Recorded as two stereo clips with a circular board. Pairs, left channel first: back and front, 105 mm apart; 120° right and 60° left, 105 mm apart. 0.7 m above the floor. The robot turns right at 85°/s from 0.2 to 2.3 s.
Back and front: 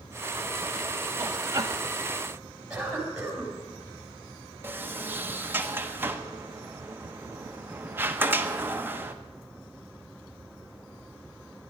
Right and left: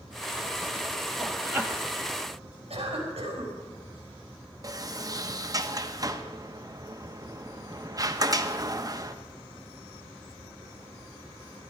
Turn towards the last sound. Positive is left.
turn(degrees=50)